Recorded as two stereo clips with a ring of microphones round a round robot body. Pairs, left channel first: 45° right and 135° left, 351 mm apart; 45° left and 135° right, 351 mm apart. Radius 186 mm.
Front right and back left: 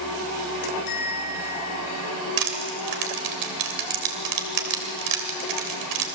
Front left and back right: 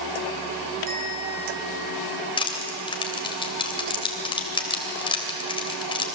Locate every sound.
0.9 s a bell: 70° right, 6 m
2.4 s crushing: 120° left, 3 m